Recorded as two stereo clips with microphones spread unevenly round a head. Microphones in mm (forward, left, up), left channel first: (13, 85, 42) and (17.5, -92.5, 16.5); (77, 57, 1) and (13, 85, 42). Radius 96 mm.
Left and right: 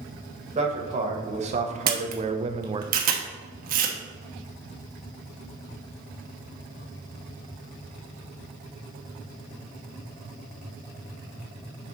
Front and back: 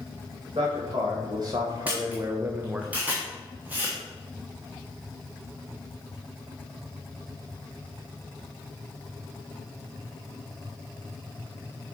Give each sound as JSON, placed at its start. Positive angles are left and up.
{"t": 0.6, "sound": "a man speaking", "azimuth_deg": -140, "distance_m": 1.9}
{"t": 1.9, "sound": "a camera shutter", "azimuth_deg": -135, "distance_m": 1.0}